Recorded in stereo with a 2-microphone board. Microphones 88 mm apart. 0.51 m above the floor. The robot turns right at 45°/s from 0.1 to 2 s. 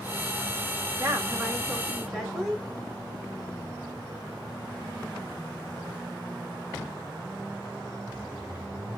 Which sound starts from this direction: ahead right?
A woman speaking, at 1.0 s.